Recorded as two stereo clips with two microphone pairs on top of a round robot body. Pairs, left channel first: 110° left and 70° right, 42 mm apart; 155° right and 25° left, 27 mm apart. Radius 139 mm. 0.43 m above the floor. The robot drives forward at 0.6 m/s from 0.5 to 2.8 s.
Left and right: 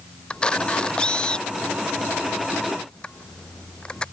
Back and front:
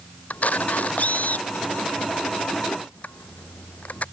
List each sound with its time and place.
0.3 s a camera shutter: straight behind